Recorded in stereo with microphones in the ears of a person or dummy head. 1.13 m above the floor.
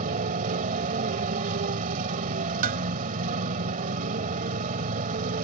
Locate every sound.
0.0 s a motorcycle: 50° right (ahead or behind)
2.6 s dishes clattering: 55° right (ahead or behind)